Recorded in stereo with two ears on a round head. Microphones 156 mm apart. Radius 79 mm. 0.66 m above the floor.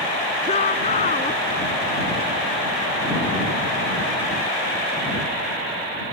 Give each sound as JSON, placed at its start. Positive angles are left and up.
{"t": 0.4, "sound": "a shout", "side_deg": 35}